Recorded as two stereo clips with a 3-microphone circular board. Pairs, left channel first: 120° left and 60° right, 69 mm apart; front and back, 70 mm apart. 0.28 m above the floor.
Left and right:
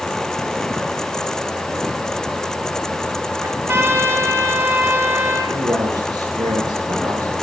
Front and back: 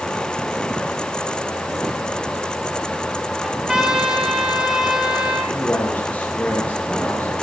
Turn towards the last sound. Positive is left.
turn(degrees=-70)